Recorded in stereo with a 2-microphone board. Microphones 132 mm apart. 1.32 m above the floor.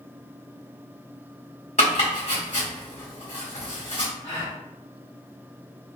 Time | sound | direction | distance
1.8 | chopping | 65° left (ahead or behind) | 1.9 m
4.2 | a gasp | 55° left (ahead or behind) | 1.6 m